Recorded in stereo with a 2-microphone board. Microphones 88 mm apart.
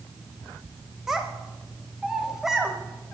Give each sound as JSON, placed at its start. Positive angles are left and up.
{"t": 1.1, "sound": "a child speaking", "side_deg": -5, "distance_m": 1.0}